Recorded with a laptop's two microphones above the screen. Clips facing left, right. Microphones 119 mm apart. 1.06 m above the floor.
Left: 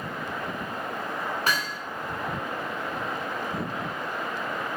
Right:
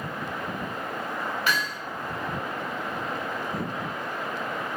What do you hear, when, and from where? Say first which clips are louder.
1.5 s hammering: right 2 dB; 40° left (ahead or behind), 3.5 m